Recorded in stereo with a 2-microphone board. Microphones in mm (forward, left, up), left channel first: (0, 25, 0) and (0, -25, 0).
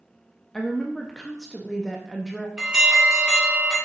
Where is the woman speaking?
10° left (ahead or behind), 1.0 m.